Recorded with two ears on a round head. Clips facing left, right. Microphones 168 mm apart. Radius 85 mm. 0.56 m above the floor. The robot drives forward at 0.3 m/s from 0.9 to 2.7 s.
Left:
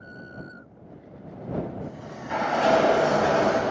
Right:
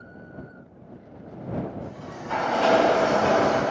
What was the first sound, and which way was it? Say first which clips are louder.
A sliding door: even; 15° left (ahead or behind).